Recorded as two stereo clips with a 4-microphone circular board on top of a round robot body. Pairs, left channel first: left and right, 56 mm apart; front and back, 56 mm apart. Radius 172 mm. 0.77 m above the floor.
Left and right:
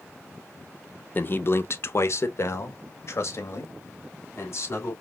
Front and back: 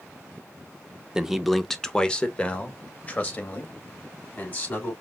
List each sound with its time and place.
1.1 s a man speaking: 110° left, 0.8 m; by 4.9 s 55° left, 3 m